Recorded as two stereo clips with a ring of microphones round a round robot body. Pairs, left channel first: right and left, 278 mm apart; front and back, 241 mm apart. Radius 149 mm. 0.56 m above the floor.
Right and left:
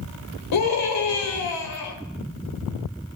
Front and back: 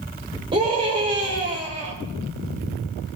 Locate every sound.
0.5 s a scream: 110° right, 2.5 m